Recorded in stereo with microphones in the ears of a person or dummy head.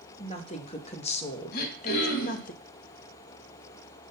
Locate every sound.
0.2 s a woman speaking: 30° left (ahead or behind), 2 m; by 2.5 s 40° left (ahead or behind), 1.1 m
1.5 s throat clearing: 50° left (ahead or behind), 3 m